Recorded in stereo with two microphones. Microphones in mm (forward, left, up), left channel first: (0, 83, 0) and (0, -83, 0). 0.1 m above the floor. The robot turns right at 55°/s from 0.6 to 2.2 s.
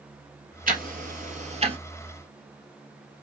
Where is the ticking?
55° right (ahead or behind), 1.8 m; by 1.8 s 30° right (ahead or behind), 1.8 m.